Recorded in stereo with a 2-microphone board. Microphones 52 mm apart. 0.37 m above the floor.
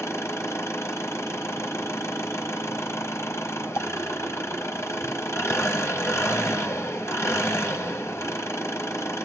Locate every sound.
0.0 s an engine running: 70° left (ahead or behind), 1.2 m